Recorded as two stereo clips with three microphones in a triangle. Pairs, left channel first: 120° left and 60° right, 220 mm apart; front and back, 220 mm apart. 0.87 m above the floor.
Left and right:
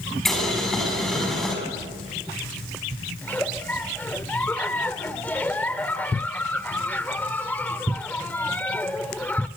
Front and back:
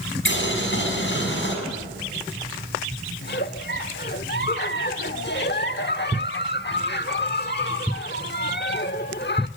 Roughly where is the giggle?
Ahead left.